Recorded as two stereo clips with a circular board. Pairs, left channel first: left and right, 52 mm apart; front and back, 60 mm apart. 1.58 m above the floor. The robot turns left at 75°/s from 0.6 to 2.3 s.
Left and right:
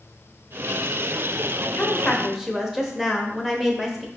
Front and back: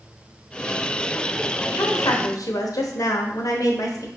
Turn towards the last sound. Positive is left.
turn(degrees=-5)